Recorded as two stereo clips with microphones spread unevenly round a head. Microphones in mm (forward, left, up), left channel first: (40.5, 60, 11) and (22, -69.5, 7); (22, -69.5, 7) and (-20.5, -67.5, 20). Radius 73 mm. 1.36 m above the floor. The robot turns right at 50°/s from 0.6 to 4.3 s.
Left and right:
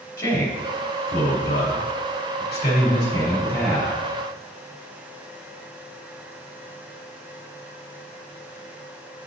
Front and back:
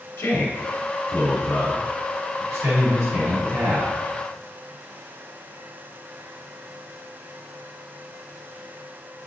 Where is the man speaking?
20° left, 2.5 m; by 3.9 s 175° right, 2.5 m.